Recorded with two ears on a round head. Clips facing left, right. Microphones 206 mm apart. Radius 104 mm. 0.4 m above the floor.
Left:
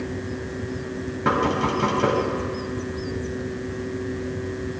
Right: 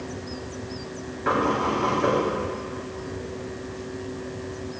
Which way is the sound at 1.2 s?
65° left (ahead or behind).